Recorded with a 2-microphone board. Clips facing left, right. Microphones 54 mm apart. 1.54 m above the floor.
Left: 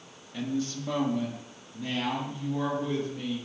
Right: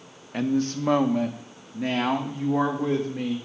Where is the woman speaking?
55° right (ahead or behind), 0.8 m; by 3.4 s 70° right (ahead or behind), 2.5 m.